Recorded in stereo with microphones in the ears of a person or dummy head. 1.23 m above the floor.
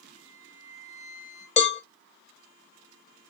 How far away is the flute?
About 3.5 m.